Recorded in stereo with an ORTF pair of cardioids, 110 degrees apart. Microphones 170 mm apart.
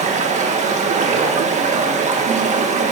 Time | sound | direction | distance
0.0 | running water | 45° right | 1.7 m